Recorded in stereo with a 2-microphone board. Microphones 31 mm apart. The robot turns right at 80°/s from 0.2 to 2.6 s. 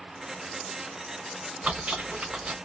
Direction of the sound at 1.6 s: 125° right.